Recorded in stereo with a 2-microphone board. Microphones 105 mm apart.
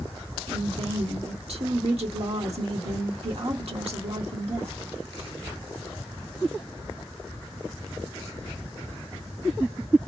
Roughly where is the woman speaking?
Right.